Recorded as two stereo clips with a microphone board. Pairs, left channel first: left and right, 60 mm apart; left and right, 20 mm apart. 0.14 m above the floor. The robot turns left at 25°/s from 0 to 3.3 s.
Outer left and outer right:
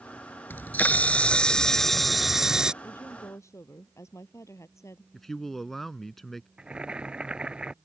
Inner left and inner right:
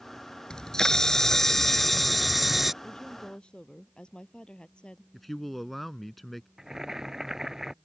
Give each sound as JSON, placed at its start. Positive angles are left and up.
{"t": 0.5, "sound": "a camera shutter", "azimuth_deg": 40}
{"t": 2.8, "sound": "a woman speaking", "side_deg": 45}
{"t": 5.1, "sound": "a man speaking", "side_deg": 5}
{"t": 6.6, "sound": "boiling", "side_deg": -15}